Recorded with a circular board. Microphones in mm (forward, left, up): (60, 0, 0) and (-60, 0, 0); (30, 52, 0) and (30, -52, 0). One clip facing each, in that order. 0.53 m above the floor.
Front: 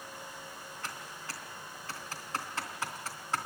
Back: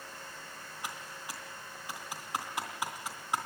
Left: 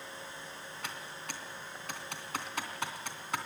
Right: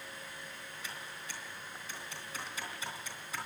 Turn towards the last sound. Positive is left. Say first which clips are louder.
# back 2 dB, left 4 dB
turn(degrees=105)